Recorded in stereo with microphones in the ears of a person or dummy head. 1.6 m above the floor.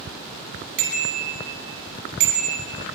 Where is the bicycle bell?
65° right (ahead or behind), 9.5 m.